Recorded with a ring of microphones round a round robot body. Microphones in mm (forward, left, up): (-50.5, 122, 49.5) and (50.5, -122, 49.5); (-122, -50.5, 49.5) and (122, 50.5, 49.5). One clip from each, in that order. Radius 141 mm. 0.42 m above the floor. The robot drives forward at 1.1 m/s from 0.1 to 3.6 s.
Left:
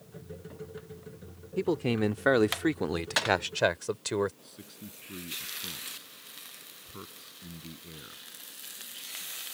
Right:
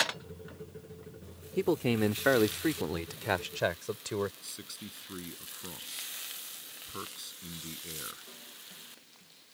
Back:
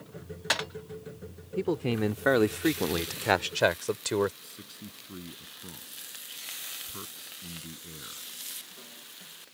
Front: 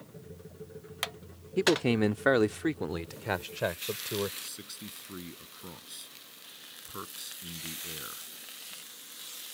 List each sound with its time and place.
1.6 s a man speaking: 5° left; by 4.3 s straight behind
4.4 s a man speaking: 30° right